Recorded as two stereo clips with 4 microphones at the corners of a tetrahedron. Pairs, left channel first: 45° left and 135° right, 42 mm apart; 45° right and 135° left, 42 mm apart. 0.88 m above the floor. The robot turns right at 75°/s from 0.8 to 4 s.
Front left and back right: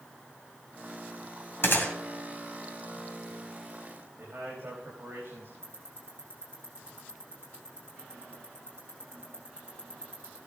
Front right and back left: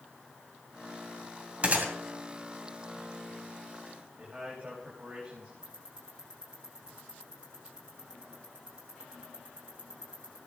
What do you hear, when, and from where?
1.6 s a gunshot: 75° left, 2.5 m; by 1.9 s 95° left, 2.5 m
4.2 s a man speaking: 160° right, 4.5 m
5.6 s ticking: 155° right, 5 m